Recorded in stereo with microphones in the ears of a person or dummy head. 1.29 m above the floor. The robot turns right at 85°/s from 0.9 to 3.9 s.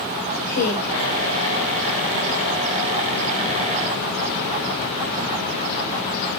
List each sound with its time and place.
0.4 s a woman speaking: 70° left (ahead or behind), 4.5 m; by 0.9 s 75° left (ahead or behind), 4.5 m